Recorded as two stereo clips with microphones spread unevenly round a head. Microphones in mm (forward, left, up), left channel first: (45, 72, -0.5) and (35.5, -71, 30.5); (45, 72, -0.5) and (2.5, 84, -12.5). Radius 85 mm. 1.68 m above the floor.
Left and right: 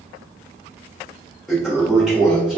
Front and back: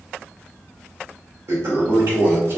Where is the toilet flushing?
170° right, 1.1 m.